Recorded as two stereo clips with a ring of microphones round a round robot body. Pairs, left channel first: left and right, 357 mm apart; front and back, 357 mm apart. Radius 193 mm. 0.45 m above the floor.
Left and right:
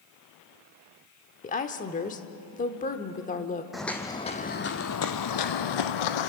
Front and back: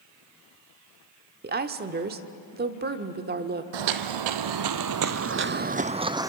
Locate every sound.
1.4 s a woman speaking: 140° left, 1.0 m
3.7 s footsteps: straight behind, 1.1 m; by 6.3 s 100° left, 1.2 m